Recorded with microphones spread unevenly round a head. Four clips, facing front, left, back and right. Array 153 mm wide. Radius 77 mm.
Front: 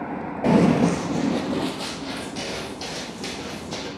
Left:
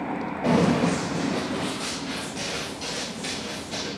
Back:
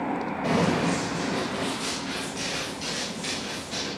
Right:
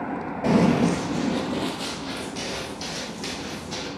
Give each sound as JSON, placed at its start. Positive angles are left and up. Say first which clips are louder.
{"t": 0.4, "sound": "running footsteps", "louder": "right 2 dB, front 7 dB", "azimuth_deg": -10, "distance_m": 1.6}